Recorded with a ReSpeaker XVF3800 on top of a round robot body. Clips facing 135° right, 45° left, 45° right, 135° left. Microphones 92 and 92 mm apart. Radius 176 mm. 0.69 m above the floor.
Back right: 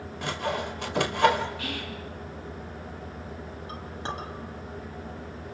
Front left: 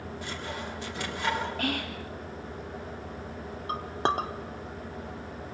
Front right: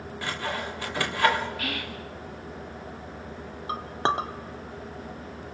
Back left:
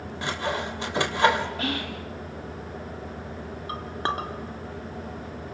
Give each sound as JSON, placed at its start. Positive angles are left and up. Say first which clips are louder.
{"t": 0.2, "sound": "sawing", "louder": "back right 9 dB, back left 3 dB", "azimuth_deg": -160, "distance_m": 3.0}
{"t": 1.6, "sound": "whispering", "louder": "front left 4 dB, back left 4 dB", "azimuth_deg": 75, "distance_m": 2.5}
{"t": 3.7, "sound": "a clink", "louder": "front left 9 dB, front right 3 dB", "azimuth_deg": 20, "distance_m": 1.9}